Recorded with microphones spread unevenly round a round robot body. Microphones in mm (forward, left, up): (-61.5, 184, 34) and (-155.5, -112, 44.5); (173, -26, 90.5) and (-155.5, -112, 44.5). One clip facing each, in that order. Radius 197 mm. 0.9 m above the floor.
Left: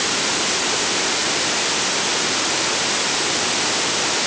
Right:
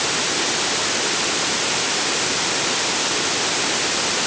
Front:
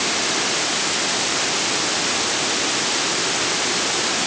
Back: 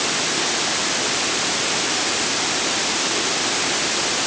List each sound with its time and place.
Only background noise.